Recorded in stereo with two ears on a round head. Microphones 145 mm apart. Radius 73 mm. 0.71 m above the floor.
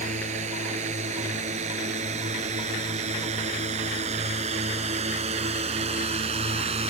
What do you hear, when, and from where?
0.0 s a drone: 45° right (ahead or behind); by 6.9 s 40° right (ahead or behind)